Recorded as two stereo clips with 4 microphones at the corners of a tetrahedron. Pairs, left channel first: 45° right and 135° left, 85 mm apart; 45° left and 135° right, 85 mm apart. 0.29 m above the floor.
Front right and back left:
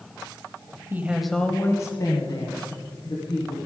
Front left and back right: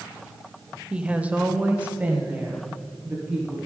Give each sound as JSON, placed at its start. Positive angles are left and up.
{"t": 0.9, "sound": "a woman speaking", "azimuth_deg": 160, "distance_m": 1.0}